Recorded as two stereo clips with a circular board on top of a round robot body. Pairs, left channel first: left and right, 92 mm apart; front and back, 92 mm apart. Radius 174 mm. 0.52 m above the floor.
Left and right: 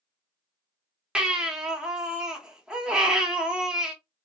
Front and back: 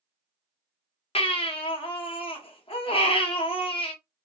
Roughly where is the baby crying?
Ahead.